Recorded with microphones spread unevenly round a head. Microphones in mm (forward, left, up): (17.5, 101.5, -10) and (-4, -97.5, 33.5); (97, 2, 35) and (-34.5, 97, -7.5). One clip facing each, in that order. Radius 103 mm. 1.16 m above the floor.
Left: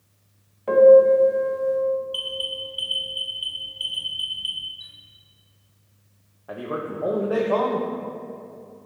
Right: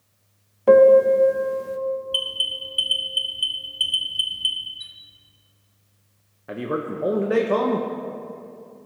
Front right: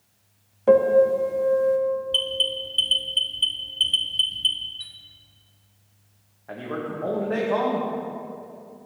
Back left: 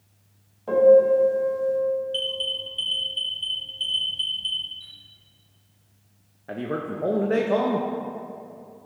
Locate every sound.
0.7 s a piano: 75° right, 0.7 m
2.1 s an alarm: 40° right, 1.0 m
4.8 s a chime: 40° right, 1.2 m
6.5 s a man speaking: 155° right, 0.6 m